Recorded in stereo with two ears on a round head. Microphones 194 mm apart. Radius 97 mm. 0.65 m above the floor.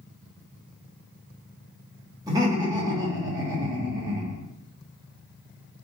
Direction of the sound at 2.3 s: 15° right (ahead or behind).